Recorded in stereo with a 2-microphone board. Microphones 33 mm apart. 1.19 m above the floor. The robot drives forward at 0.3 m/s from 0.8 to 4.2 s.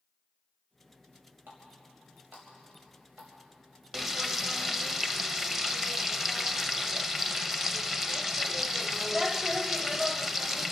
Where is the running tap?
85° right, 4 m; by 3.3 s 80° right, 4 m.